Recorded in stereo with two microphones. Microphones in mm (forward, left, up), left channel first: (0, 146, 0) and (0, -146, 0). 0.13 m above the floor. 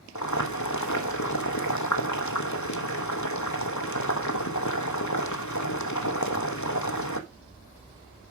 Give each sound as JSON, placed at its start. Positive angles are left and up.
{"t": 0.1, "sound": "boiling", "side_deg": 70, "distance_m": 1.1}